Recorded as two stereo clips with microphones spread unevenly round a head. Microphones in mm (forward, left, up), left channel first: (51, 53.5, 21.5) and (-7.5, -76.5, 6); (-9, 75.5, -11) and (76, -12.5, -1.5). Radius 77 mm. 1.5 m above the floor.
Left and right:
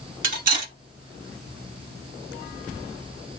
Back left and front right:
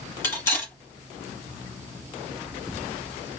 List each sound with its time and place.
0.2 s cutlery clinking: 155° right, 1.8 m